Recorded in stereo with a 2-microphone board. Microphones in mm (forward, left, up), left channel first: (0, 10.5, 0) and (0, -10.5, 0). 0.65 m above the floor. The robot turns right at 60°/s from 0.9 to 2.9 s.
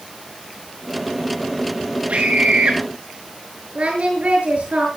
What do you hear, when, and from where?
2.1 s a scream: 100° right, 9 m; by 2.8 s 55° right, 9 m
3.8 s singing: 65° right (ahead or behind), 6.5 m